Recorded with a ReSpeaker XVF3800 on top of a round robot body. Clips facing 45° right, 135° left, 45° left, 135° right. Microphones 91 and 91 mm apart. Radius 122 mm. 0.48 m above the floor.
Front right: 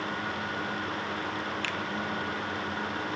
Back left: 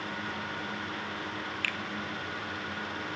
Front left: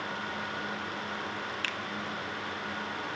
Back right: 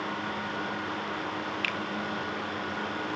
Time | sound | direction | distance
1.6 | a finger snap | 5° left | 0.6 m